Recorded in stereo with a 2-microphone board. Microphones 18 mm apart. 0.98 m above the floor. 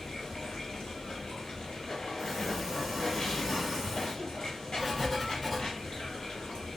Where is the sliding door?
5° right (ahead or behind), 1.4 m.